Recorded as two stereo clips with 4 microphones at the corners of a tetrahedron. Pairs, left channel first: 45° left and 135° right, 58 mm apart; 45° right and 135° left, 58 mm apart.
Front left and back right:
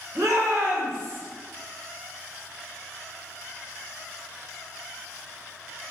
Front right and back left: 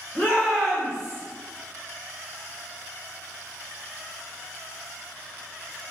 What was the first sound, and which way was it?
A shout, 95° right.